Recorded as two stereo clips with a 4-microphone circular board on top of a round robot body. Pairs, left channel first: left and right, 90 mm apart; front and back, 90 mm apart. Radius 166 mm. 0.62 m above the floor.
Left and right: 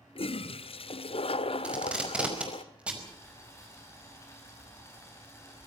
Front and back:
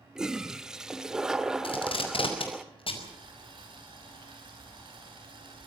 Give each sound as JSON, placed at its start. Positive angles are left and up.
{"t": 0.1, "sound": "a toilet flushing", "azimuth_deg": 95, "distance_m": 1.3}
{"t": 1.6, "sound": "tape being pulled", "azimuth_deg": -15, "distance_m": 5.0}
{"t": 3.0, "sound": "boiling", "azimuth_deg": 150, "distance_m": 8.5}